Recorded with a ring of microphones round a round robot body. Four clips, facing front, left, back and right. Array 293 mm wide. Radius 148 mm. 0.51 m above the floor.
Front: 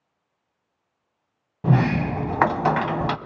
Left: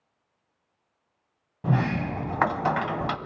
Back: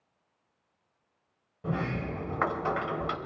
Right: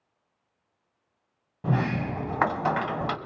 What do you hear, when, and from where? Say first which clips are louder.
1.6 s a sliding door: left 1 dB, front 11 dB; straight ahead, 0.5 m